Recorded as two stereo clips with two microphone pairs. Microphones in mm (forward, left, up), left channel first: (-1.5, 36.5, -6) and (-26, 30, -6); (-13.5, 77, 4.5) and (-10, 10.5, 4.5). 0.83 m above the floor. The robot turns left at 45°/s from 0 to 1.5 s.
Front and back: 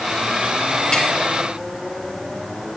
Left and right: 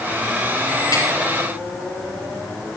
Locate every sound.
0.9 s tapping: 65° left, 5.5 m; by 1.1 s 55° left, 5.5 m